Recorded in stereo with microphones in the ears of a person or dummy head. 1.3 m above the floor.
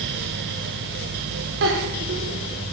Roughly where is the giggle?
Right.